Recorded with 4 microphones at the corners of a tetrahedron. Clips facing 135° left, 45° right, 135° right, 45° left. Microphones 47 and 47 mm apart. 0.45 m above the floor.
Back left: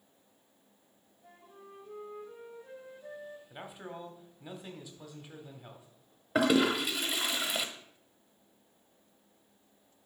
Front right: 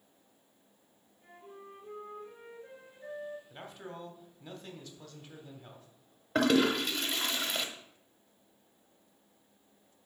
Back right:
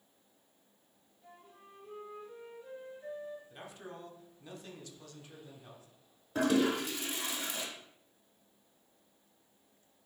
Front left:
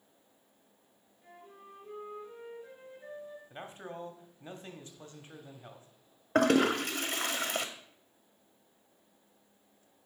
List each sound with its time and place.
1.2 s a flute: 20° right, 3.5 m
3.5 s a man speaking: 70° left, 1.1 m
6.3 s a toilet flushing: 55° left, 0.8 m